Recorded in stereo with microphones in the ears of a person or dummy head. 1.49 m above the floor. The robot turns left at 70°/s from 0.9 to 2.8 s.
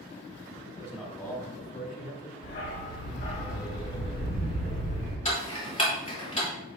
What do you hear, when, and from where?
0.7 s a man speaking: 165° right, 3 m; by 2.3 s 95° left, 3 m
2.4 s a dog barking: 60° left (ahead or behind), 1.9 m; by 5.2 s 40° left (ahead or behind), 1.9 m
5.2 s ticking: 30° left (ahead or behind), 2.5 m